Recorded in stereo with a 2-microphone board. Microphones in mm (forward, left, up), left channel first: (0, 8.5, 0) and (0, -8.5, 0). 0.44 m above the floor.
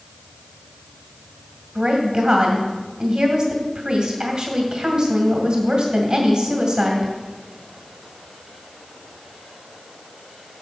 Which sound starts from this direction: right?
A woman speaking, at 1.8 s.